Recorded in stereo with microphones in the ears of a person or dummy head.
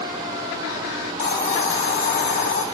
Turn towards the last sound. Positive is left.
turn(degrees=35)  # may be behind; listen again after turning